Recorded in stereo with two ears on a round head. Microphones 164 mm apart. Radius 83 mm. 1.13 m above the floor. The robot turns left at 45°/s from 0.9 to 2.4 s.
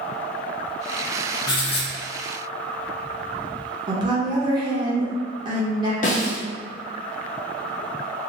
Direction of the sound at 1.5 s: 20° left (ahead or behind).